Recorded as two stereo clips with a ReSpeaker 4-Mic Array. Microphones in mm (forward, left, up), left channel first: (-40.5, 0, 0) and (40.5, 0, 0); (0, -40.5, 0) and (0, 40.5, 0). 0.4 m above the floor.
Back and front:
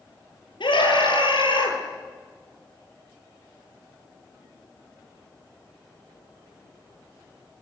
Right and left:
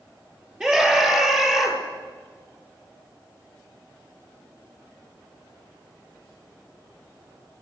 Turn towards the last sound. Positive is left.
turn(degrees=175)